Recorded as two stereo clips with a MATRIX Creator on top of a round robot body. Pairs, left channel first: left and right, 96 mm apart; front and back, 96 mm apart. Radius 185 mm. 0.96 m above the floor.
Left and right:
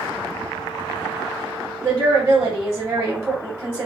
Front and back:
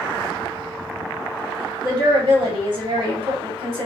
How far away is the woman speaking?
About 2 m.